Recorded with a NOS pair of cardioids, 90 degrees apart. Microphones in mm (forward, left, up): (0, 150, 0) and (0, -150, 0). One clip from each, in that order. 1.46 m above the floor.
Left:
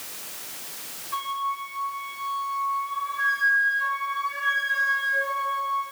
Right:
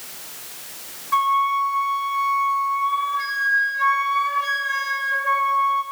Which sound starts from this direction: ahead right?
A flute, at 1.1 s.